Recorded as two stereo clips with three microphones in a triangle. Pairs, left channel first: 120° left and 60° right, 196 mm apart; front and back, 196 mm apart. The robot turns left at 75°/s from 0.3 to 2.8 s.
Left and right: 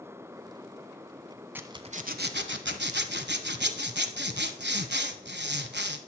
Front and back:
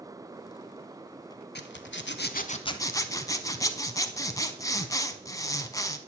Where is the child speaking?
I don't hear a child speaking.